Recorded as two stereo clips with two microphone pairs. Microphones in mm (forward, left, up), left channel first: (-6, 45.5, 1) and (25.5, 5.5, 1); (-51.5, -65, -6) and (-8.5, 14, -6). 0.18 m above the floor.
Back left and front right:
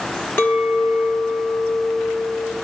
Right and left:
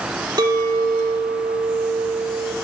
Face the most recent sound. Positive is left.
turn(degrees=100)